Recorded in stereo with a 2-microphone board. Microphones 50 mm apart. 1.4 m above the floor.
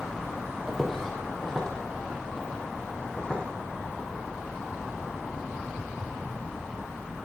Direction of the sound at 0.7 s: 5° left (ahead or behind).